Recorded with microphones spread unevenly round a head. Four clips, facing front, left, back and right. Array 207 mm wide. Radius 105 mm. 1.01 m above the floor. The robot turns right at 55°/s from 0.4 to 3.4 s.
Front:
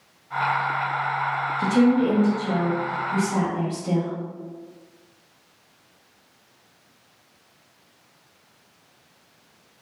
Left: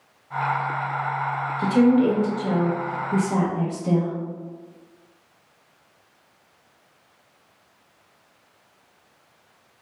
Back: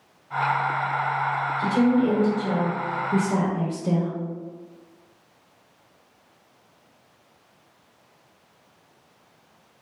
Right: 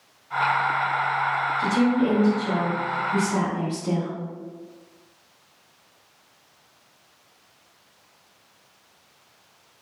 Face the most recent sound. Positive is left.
turn(degrees=140)